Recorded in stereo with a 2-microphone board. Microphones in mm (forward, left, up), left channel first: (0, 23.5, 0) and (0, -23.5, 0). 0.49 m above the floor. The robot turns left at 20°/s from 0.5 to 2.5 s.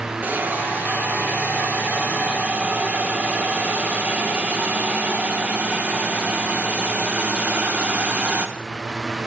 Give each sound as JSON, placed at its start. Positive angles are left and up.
{"t": 0.2, "sound": "a hiss", "azimuth_deg": -85, "distance_m": 1.2}